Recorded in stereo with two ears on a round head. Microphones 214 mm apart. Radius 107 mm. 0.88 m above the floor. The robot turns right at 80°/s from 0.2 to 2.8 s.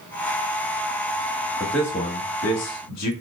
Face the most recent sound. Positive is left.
turn(degrees=80)